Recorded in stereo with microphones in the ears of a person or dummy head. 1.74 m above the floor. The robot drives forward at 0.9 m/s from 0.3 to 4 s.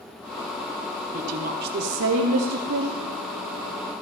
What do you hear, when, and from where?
1.1 s a woman speaking: 40° right (ahead or behind), 1.4 m; by 3.0 s 60° right (ahead or behind), 1.2 m